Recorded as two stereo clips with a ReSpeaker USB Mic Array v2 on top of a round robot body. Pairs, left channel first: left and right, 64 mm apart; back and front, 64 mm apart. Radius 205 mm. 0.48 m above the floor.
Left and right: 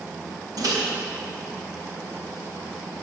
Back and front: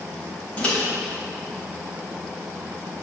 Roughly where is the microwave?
Right.